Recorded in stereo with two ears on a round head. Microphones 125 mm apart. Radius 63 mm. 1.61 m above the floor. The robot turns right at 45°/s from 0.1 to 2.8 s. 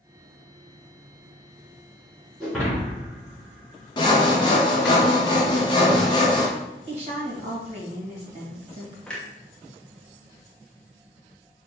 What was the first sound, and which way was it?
Breaking glass, centre (ahead or behind).